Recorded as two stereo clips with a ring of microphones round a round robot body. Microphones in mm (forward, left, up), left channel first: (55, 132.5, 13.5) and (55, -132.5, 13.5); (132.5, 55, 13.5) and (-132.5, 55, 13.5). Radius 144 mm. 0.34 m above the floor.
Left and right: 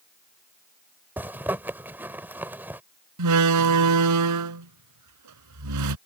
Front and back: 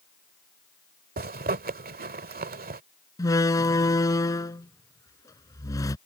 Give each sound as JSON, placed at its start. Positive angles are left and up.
{"t": 1.2, "sound": "a zipper", "azimuth_deg": -165}
{"t": 3.2, "sound": "a door slam", "azimuth_deg": -80}